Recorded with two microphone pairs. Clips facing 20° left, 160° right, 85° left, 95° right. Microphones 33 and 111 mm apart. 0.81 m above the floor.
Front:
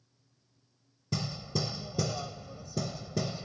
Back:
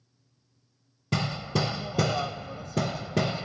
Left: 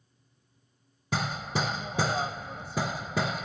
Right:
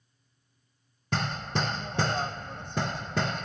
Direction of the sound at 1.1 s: 170° left.